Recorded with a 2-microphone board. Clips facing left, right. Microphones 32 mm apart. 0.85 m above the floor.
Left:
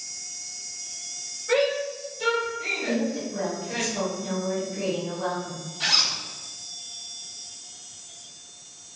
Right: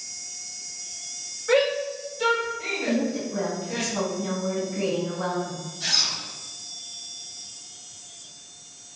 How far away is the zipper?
About 0.5 m.